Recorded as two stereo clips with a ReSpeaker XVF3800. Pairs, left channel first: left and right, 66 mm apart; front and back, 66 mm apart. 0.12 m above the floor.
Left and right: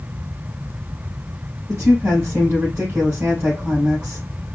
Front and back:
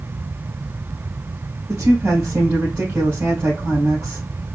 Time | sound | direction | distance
1.7 | a woman speaking | 125° right | 2.5 m